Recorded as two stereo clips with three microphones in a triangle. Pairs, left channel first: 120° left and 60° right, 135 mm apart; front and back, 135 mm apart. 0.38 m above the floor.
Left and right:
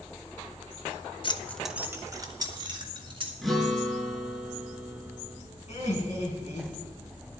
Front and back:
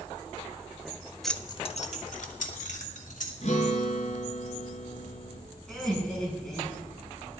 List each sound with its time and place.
1.2 s keys jangling: 90° left, 0.7 m; by 3.3 s 10° right, 3 m
3.4 s a guitar: 30° left, 2.5 m
5.7 s laughter: 85° left, 4.5 m